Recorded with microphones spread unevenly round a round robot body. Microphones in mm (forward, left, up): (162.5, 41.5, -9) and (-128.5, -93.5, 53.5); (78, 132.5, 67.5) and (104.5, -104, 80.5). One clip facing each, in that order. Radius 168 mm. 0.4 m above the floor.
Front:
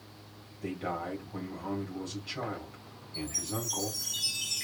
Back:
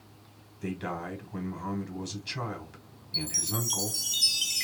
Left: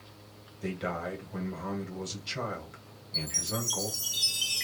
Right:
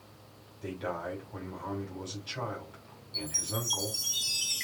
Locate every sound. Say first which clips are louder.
0.6 s a man speaking: back 1 dB, left 2 dB; 155° left, 2 m
3.1 s a chime: back 1 dB, left 1 dB; 175° right, 1.3 m